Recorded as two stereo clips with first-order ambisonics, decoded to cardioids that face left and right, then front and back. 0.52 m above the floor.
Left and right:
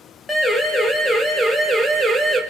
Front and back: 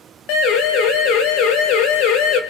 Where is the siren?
10° left, 3.5 m; by 2.4 s 10° right, 3 m.